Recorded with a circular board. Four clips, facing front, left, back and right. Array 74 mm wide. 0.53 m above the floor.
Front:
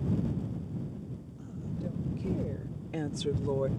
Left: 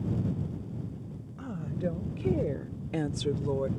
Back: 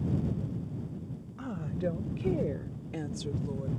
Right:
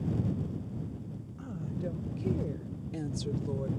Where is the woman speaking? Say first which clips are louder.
Left 4 dB, back 6 dB; 155° left; by 3.7 s 35° left.